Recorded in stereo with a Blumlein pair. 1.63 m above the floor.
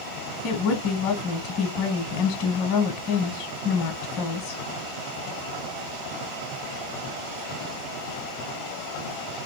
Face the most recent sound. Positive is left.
turn(degrees=40)